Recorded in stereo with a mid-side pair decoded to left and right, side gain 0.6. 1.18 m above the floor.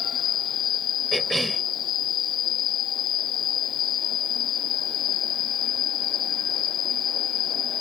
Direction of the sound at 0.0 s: 50° left.